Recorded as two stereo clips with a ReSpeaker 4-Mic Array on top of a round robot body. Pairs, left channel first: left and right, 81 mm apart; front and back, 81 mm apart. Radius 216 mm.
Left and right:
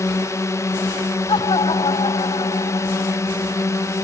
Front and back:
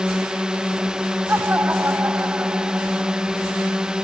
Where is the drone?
105° left.